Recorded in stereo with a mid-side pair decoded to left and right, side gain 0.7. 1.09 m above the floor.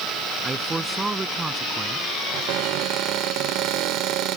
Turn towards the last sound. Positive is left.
turn(degrees=-60)